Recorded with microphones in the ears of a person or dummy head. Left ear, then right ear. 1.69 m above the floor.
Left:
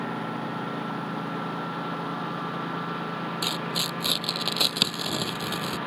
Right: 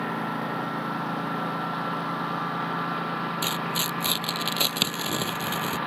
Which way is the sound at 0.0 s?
20° right (ahead or behind).